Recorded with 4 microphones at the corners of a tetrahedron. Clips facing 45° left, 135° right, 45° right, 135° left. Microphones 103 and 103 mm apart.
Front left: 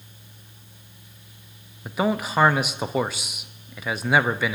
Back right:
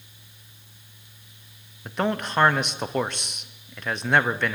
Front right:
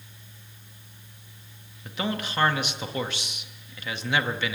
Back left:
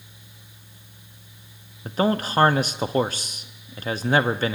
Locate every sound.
1.9 s a man speaking: 125° left, 0.5 m